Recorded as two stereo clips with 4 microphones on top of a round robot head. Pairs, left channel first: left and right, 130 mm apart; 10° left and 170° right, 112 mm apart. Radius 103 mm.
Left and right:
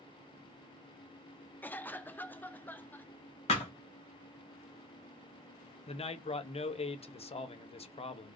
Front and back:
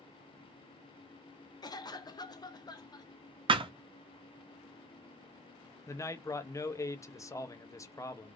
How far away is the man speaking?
About 0.6 m.